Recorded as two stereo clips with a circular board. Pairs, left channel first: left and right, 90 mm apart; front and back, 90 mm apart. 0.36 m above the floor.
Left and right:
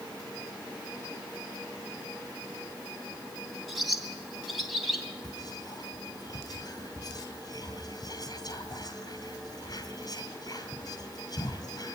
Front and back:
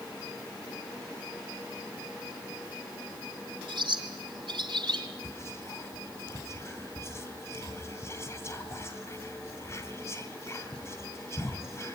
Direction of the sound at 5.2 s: 55° left.